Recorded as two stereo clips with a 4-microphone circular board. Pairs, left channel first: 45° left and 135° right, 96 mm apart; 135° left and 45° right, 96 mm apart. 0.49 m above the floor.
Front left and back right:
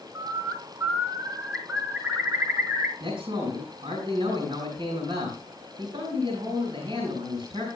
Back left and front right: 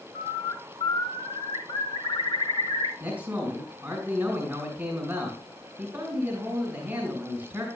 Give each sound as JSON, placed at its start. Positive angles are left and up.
{"t": 0.1, "sound": "a bird", "azimuth_deg": 155, "distance_m": 1.5}
{"t": 3.0, "sound": "a man speaking", "azimuth_deg": -120, "distance_m": 3.0}